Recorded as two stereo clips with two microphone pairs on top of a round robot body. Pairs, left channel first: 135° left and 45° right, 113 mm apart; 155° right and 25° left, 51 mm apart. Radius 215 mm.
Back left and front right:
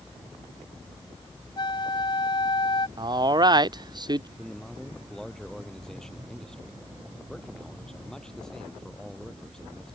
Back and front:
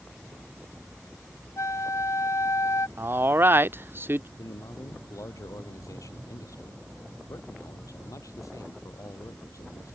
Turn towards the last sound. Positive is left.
turn(degrees=-140)